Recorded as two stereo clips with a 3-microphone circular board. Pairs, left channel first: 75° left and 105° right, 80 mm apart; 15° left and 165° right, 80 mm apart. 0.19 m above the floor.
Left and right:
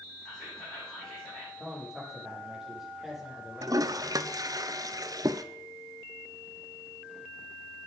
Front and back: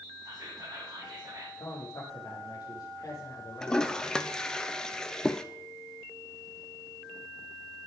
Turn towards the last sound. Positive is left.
turn(degrees=-65)